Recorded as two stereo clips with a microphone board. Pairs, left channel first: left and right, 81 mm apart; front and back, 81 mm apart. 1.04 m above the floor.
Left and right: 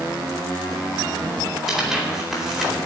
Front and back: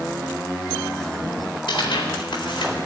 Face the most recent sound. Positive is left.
turn(degrees=-5)